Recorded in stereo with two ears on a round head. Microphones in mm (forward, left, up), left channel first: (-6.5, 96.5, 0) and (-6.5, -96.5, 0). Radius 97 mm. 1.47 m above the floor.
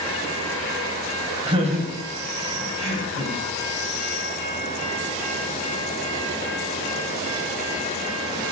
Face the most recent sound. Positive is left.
turn(degrees=-60)  # may be behind; listen again after turning